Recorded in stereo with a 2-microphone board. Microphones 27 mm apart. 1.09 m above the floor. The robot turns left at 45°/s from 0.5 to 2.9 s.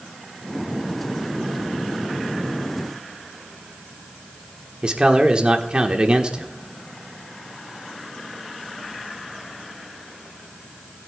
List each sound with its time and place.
4.8 s a man speaking: 40° right (ahead or behind), 1.3 m